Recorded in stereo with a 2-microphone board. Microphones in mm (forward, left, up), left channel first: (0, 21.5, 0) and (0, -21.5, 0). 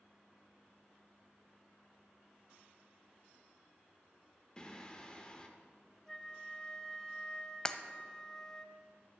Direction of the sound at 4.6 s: 20° left (ahead or behind).